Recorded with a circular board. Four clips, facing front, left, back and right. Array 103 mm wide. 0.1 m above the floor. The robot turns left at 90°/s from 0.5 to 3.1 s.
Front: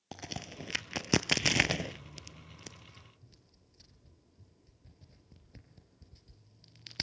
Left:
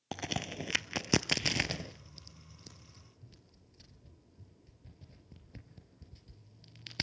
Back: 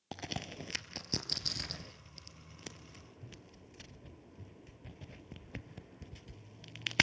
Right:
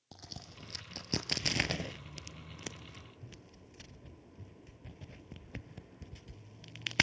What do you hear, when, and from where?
0.1 s a crack: 95° left, 0.6 m; by 7.0 s 140° right, 0.6 m